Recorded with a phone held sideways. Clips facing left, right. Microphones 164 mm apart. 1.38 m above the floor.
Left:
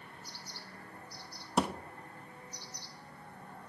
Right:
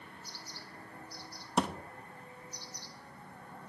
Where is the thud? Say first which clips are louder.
Left 1 dB; 5° left (ahead or behind), 0.7 m.